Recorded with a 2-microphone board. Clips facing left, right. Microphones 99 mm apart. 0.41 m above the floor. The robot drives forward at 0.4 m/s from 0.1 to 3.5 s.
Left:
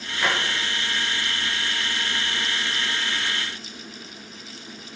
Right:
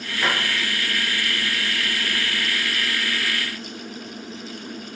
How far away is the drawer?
About 5 m.